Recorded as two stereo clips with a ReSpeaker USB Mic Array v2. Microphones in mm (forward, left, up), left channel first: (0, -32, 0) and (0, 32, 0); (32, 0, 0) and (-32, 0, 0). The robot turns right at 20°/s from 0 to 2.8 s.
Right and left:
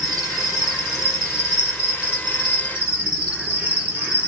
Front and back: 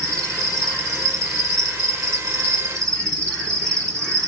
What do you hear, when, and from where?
0.0 s an insect: 15° left, 1.4 m; by 4.3 s 70° left, 1.4 m